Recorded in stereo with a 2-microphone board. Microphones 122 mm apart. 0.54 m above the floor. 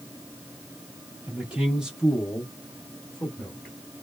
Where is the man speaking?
10° right (ahead or behind), 1.3 m; by 3.8 s 10° left (ahead or behind), 1.3 m.